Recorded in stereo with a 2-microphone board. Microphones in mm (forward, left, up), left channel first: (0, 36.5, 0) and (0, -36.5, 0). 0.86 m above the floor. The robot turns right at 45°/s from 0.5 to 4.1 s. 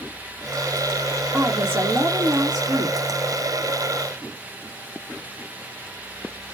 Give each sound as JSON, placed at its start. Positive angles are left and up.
{"t": 1.3, "sound": "a woman speaking", "azimuth_deg": -165, "distance_m": 1.3}